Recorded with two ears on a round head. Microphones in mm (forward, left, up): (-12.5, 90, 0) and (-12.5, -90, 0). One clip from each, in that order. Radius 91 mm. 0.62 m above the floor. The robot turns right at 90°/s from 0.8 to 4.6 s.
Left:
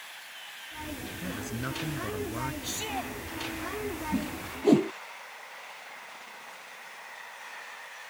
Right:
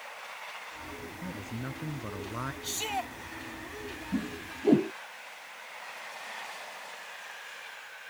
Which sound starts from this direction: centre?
A whoosh, at 4.1 s.